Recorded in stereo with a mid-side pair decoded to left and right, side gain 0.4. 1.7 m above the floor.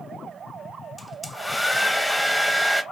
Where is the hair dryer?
5° left, 0.5 m.